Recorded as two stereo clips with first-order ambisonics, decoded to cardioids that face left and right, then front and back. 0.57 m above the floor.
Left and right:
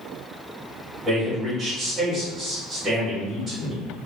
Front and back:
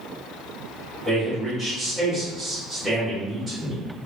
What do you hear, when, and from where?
1.1 s a man speaking: 105° right, 1.1 m